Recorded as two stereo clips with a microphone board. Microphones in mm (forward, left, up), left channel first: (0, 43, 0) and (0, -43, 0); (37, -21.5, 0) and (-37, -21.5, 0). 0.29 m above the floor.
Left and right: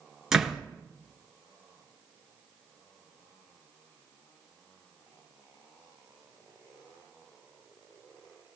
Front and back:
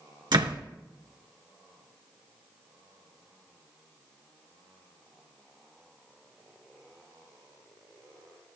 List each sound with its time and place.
0.3 s a door slam: 175° right, 2.5 m